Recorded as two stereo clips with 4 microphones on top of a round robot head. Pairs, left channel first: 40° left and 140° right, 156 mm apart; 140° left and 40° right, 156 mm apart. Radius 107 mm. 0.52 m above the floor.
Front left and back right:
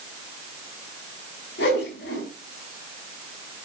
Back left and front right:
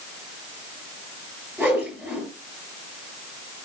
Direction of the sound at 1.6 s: 40° left.